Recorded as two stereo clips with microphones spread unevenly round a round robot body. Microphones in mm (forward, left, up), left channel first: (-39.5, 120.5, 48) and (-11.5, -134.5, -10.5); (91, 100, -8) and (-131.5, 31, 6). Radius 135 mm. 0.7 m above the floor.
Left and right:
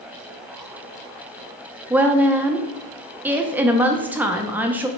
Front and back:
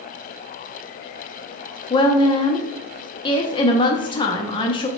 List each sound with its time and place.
1.9 s a woman speaking: 30° right, 0.5 m